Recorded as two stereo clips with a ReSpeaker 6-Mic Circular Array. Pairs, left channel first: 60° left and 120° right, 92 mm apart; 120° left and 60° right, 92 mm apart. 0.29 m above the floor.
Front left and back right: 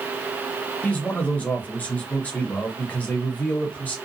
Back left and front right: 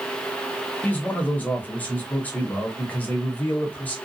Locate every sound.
0.8 s a man speaking: 90° left, 0.9 m